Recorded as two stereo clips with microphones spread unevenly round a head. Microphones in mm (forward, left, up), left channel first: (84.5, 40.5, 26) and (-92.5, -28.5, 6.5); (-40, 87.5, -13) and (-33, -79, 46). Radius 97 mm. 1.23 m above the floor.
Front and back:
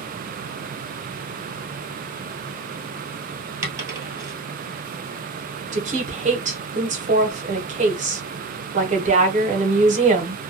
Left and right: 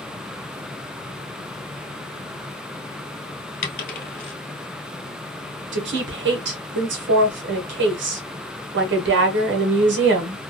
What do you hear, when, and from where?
3.6 s a dropped coin: 130° left, 1.6 m
5.7 s a woman speaking: 110° right, 1.3 m